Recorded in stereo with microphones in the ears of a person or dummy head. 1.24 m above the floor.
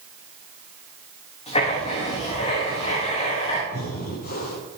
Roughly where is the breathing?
Left.